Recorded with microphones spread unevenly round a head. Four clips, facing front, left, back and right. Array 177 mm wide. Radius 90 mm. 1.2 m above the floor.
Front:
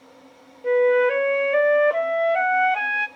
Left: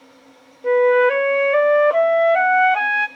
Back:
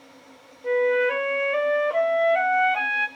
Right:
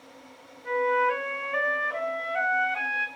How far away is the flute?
About 0.7 m.